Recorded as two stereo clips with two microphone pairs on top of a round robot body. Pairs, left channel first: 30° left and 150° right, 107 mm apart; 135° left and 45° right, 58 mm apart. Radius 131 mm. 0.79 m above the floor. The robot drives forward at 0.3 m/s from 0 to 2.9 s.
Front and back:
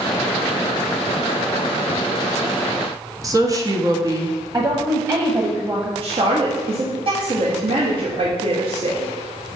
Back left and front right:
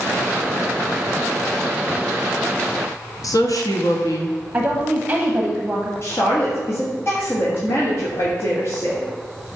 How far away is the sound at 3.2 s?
About 1.4 m.